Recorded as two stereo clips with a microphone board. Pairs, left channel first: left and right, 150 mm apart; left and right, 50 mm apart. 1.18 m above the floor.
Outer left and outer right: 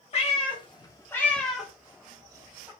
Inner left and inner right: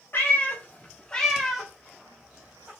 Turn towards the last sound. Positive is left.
turn(degrees=-30)  # may be behind; listen again after turning